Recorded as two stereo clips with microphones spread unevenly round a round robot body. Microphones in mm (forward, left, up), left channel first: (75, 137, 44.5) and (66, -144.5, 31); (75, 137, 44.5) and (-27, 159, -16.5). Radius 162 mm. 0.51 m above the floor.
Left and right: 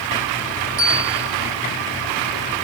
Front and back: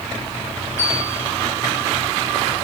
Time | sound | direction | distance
0.8 | a bell | 65° right | 9 m